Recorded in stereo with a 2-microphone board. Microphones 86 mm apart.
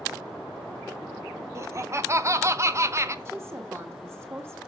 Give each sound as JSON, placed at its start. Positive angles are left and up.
{"t": 1.6, "sound": "laughter", "side_deg": -35, "distance_m": 0.7}
{"t": 3.2, "sound": "a woman speaking", "side_deg": -30, "distance_m": 1.8}